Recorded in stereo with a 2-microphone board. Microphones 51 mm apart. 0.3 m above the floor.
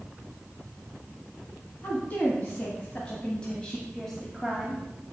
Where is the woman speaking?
35° left (ahead or behind), 2 m; by 4.8 s 5° right (ahead or behind), 1.4 m.